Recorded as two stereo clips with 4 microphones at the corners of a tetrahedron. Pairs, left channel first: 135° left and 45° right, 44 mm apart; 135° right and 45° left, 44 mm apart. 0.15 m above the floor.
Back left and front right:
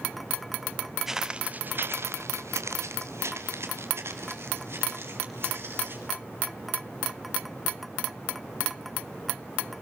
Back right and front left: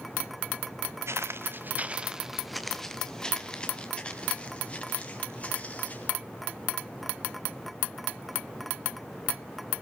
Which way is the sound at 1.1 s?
35° left.